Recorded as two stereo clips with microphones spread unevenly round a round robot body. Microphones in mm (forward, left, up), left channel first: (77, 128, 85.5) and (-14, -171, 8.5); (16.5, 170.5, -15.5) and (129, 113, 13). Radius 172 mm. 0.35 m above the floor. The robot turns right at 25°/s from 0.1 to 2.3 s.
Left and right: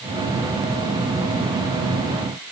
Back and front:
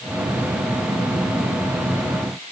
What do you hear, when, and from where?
Only background noise.